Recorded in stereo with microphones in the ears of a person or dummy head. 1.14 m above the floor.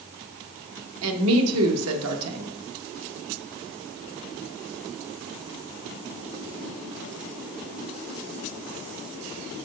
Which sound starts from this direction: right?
A woman speaking, at 1.0 s.